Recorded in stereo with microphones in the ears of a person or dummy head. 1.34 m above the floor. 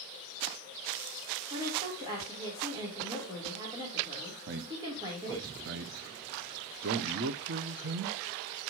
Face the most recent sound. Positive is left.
turn(degrees=-50)  # may be behind; listen again after turning